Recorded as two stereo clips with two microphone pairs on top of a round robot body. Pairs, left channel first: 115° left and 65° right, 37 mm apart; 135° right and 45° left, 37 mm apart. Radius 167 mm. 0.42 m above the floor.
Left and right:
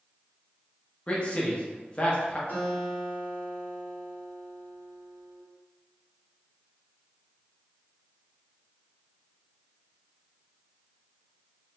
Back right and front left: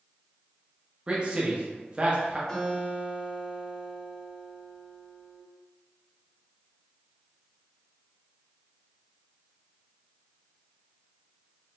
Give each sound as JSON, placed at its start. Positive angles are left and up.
{"t": 1.1, "sound": "a man speaking", "azimuth_deg": 100, "distance_m": 0.9}
{"t": 2.5, "sound": "a guitar", "azimuth_deg": 155, "distance_m": 2.0}